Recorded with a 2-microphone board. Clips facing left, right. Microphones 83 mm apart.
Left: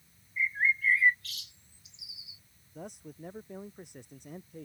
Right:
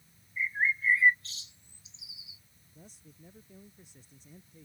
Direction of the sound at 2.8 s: 65° left (ahead or behind).